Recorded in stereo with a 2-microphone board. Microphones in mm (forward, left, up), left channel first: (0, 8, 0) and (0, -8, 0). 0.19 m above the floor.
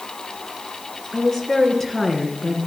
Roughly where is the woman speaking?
Left.